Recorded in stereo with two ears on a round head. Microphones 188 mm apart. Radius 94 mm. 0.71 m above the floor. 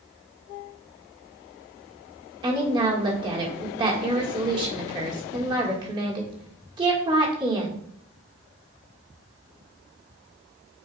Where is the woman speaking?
25° right (ahead or behind), 1.7 m.